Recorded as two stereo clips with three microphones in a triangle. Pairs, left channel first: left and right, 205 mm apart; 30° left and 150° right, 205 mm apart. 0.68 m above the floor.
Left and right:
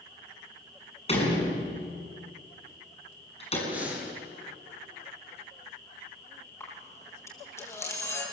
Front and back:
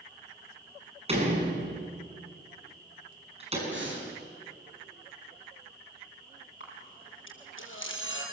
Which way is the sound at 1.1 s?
150° left.